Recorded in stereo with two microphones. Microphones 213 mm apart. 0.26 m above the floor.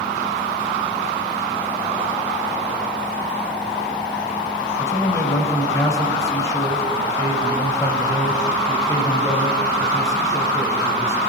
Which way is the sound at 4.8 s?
15° left (ahead or behind).